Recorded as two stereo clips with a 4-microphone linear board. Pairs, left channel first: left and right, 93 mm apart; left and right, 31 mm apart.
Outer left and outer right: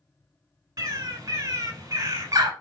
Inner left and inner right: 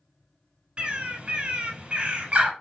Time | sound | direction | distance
0.8 | a bird | 40° right (ahead or behind) | 0.8 m